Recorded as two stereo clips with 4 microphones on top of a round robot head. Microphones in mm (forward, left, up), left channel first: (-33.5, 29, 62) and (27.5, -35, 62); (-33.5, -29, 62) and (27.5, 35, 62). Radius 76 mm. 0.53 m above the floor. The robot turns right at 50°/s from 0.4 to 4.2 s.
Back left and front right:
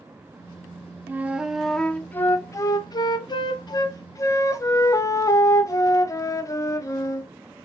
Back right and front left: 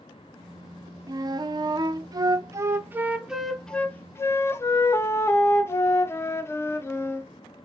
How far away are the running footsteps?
No running footsteps in this recording.